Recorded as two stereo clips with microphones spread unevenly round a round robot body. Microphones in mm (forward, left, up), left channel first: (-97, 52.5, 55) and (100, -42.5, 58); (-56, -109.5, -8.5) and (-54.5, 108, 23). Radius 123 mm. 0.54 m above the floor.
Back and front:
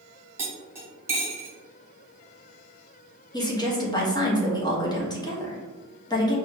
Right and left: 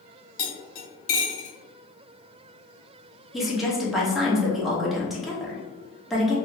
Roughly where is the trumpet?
I don't hear a trumpet.